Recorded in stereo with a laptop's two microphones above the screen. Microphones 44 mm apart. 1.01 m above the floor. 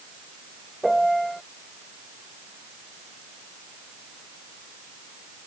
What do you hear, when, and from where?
0.8 s a piano: centre (ahead or behind)